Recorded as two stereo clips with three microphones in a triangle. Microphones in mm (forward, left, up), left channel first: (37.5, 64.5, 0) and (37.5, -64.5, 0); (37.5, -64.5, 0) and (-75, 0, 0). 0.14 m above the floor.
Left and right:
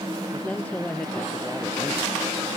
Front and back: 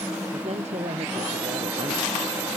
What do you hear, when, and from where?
0.3 s a man speaking: 170° left